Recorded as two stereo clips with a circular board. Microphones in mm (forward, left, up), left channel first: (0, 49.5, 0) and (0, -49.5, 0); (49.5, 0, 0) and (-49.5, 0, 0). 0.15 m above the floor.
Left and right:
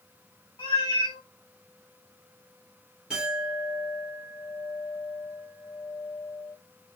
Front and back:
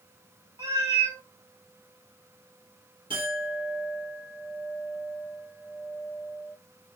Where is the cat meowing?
130° left, 1.0 m.